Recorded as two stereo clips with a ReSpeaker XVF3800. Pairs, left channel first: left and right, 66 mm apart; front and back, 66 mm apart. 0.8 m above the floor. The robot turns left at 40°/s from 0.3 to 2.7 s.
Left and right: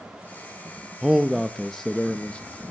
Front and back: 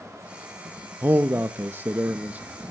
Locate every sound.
1.0 s a man speaking: 160° right, 0.6 m; by 2.5 s 140° left, 0.6 m